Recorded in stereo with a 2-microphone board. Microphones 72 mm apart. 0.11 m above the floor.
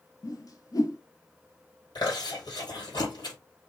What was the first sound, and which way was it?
A whoosh, 50° left (ahead or behind).